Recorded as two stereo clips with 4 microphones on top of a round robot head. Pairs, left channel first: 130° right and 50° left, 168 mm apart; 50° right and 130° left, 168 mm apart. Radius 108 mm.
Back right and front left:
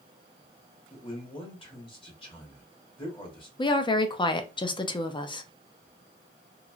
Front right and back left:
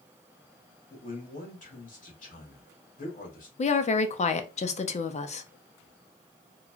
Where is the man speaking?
75° right, 1.3 m.